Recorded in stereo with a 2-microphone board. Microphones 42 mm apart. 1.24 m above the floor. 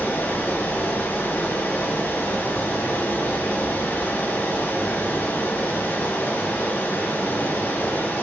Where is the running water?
55° left (ahead or behind), 2.5 m.